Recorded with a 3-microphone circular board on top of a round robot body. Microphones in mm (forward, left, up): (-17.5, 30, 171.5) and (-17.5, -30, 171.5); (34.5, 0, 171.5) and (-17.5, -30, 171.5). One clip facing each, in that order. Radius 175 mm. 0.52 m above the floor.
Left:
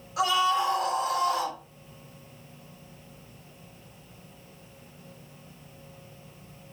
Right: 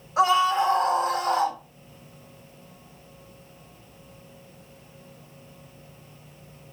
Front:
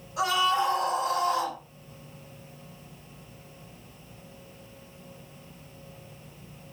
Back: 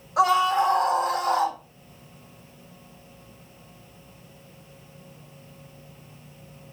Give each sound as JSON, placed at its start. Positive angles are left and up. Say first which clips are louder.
{"t": 0.2, "sound": "a scream", "louder": "right 4 dB, back 5 dB", "azimuth_deg": -140, "distance_m": 3.5}